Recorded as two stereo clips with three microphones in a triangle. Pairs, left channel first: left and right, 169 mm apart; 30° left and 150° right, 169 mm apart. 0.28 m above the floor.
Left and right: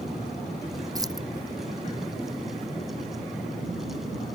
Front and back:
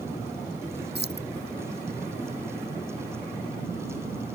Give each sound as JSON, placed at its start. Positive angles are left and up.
{"t": 0.9, "sound": "keys jangling", "azimuth_deg": -160}